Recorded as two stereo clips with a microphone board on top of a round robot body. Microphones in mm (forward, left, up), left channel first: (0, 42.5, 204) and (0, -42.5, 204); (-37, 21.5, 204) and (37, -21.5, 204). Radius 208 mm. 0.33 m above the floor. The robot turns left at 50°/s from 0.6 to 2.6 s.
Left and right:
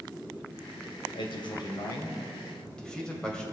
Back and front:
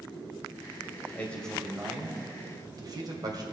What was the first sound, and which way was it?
A man speaking, 85° left.